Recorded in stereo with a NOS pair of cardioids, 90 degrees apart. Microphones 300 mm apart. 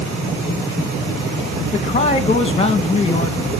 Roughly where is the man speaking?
Ahead.